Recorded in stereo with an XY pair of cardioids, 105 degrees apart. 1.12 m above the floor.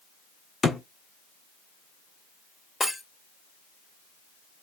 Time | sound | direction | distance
0.6 | a thud | 30° left | 1.5 m
2.8 | breaking glass | 25° left | 2 m